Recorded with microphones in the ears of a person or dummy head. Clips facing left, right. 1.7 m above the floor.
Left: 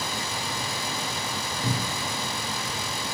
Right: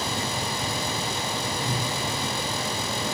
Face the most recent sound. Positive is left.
turn(degrees=45)  # may be behind; listen again after turning